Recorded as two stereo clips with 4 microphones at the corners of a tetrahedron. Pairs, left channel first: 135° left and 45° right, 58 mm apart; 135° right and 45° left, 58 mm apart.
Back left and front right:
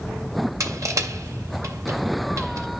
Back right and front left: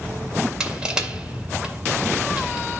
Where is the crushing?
30° right, 2 m.